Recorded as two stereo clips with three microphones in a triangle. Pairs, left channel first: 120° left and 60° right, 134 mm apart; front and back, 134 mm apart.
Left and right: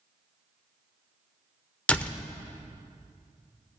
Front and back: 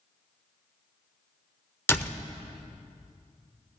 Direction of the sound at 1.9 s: 50° left.